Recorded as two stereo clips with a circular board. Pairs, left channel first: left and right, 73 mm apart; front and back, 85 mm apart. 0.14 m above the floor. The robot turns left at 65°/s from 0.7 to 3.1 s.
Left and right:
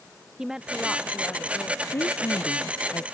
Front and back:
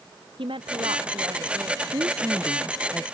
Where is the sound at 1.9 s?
145° left; by 3.0 s 70° left.